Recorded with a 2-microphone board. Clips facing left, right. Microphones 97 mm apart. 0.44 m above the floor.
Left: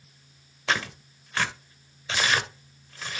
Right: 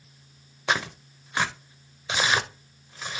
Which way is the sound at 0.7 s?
15° right (ahead or behind).